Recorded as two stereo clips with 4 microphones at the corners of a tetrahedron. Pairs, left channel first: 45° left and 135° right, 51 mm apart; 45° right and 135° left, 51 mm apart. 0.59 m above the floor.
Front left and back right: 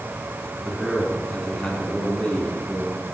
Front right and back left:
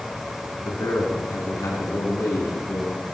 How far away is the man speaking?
About 6 m.